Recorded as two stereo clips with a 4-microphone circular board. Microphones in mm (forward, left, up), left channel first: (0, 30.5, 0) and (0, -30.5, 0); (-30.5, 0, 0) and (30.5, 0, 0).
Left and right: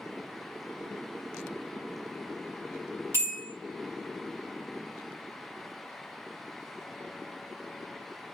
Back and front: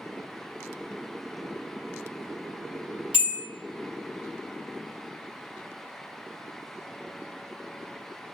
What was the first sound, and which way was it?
A bell, 70° right.